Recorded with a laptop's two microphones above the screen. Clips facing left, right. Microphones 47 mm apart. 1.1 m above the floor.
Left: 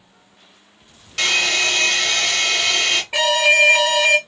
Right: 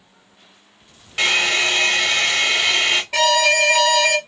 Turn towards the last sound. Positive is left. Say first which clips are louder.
# left 2 dB
turn(degrees=15)  # may be behind; listen again after turning